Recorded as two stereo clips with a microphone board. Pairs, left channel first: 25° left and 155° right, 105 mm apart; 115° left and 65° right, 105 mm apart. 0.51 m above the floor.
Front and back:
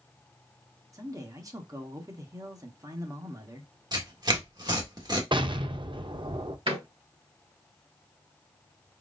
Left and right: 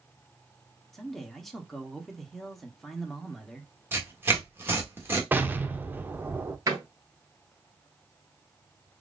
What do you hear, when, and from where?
0.9 s a man speaking: 160° right, 1.0 m
3.9 s tearing paper: 130° right, 1.4 m
5.3 s an explosion: 135° right, 0.6 m
6.7 s a door slam: 125° right, 2.0 m